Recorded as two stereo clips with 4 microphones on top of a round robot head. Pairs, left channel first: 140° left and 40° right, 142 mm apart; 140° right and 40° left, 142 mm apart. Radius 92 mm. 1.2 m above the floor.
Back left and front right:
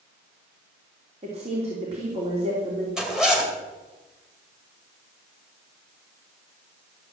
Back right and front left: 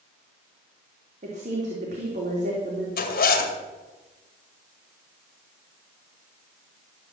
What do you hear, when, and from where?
1.2 s a woman speaking: 5° left, 3 m
3.0 s a zipper: 130° right, 2 m